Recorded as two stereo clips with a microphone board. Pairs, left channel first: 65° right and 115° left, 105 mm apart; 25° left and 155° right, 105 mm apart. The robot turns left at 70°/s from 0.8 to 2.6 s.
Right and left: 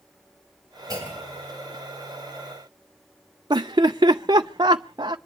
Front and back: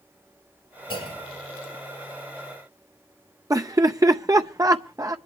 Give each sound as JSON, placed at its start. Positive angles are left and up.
{"t": 0.9, "sound": "a clunk", "azimuth_deg": 60, "distance_m": 9.0}
{"t": 3.5, "sound": "laughter", "azimuth_deg": 150, "distance_m": 0.5}